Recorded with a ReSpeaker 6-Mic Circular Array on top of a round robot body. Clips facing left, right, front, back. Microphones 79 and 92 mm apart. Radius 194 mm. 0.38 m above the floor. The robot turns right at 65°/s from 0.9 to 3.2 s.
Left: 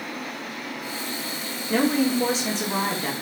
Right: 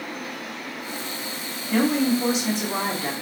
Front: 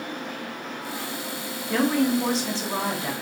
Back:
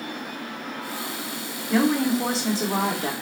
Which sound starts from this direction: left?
A woman speaking, at 1.7 s.